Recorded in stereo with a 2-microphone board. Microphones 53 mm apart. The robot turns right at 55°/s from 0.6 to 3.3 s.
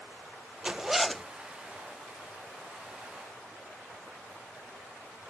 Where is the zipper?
25° right; by 1.2 s 10° left.